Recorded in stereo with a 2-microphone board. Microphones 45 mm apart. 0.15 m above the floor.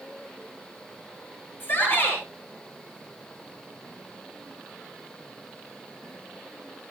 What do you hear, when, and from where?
1.6 s a shout: 50° left (ahead or behind), 3 m